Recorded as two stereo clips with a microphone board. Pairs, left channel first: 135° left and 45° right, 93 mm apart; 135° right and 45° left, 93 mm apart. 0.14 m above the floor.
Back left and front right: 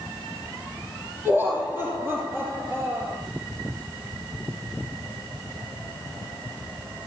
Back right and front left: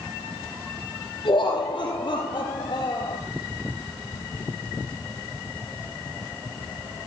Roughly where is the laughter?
Right.